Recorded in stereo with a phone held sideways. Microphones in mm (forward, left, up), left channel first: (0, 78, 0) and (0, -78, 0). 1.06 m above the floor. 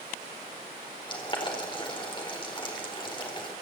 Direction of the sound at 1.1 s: 30° left (ahead or behind).